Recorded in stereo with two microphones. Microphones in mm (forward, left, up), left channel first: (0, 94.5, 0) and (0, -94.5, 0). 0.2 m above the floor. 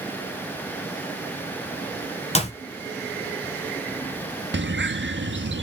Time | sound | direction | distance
2.4 | a clap | 35° left (ahead or behind) | 2.5 m
4.5 | a bird | 80° right | 0.8 m